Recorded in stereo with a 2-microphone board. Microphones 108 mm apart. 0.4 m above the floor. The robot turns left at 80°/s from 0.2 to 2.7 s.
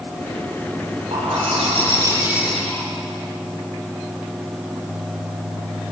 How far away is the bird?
About 7.5 m.